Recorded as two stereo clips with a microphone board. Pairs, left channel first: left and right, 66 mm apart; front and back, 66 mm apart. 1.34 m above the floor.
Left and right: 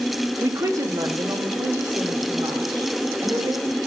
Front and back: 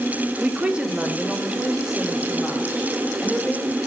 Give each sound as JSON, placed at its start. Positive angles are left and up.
{"t": 0.4, "sound": "a woman speaking", "azimuth_deg": -115, "distance_m": 0.6}